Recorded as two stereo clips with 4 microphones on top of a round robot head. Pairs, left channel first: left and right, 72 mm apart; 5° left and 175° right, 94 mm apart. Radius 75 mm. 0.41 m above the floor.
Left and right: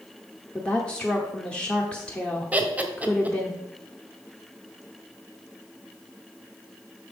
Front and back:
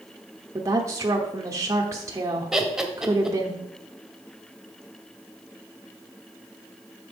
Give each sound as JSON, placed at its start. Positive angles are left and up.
{"t": 0.6, "sound": "a woman speaking", "azimuth_deg": 165, "distance_m": 0.9}
{"t": 2.5, "sound": "laughter", "azimuth_deg": -100, "distance_m": 1.3}